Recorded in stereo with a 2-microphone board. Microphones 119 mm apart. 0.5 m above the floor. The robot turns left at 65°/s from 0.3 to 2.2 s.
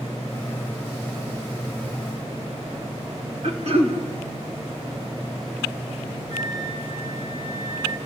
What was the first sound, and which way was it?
Throat clearing, 70° right (ahead or behind).